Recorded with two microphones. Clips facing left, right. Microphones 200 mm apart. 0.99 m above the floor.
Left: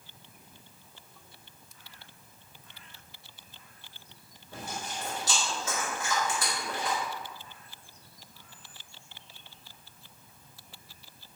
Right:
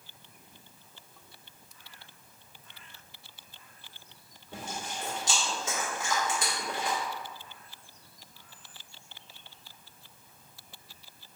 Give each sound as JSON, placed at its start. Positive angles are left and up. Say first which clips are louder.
{"t": 4.5, "sound": "chewing", "louder": "even", "side_deg": -20, "distance_m": 2.0}